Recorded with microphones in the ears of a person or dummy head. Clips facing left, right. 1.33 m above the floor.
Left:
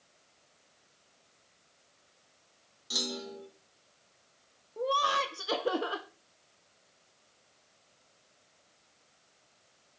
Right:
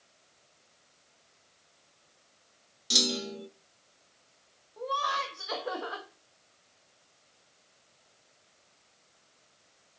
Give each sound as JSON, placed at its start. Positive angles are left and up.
{"t": 2.9, "sound": "a clunk", "side_deg": -30, "distance_m": 1.1}
{"t": 4.8, "sound": "laughter", "side_deg": 40, "distance_m": 1.1}